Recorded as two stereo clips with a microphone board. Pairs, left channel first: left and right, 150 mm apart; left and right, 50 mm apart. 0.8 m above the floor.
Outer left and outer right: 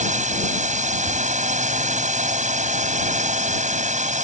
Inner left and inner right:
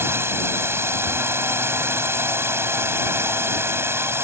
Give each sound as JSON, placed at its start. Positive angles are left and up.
{"t": 0.0, "sound": "a drone", "side_deg": -55}